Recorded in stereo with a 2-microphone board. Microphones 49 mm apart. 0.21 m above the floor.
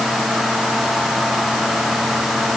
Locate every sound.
Only background noise.